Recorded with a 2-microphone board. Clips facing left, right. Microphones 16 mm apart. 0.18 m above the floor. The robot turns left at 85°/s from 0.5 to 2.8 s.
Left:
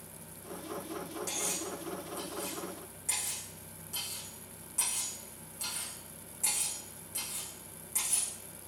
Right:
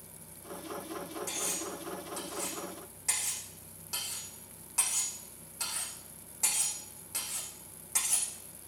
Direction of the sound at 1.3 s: 25° left (ahead or behind).